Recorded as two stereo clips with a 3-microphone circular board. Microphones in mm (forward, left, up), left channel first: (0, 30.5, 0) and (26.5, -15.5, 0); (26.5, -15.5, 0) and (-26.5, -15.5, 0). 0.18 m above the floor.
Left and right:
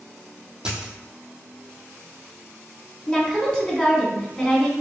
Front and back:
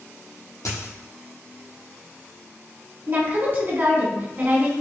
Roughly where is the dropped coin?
Ahead.